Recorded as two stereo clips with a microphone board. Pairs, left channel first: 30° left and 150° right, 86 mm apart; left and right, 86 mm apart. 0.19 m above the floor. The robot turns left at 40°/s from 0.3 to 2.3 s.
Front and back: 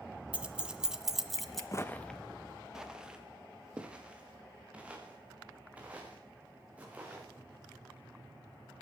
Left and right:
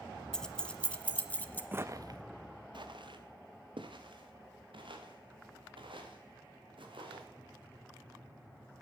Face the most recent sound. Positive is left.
turn(degrees=-75)